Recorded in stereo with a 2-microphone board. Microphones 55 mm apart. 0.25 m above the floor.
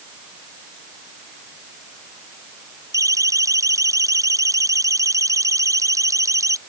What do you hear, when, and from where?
2.9 s a siren: 85° right; by 6.6 s 80° right